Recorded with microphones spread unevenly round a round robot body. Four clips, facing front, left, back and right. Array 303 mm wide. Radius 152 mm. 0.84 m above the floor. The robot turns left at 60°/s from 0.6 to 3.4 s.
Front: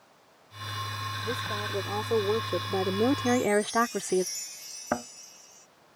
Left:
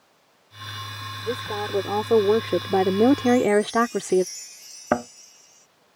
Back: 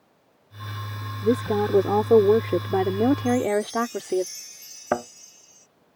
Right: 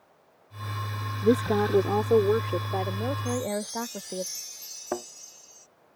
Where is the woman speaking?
140° right; by 4.2 s 90° left.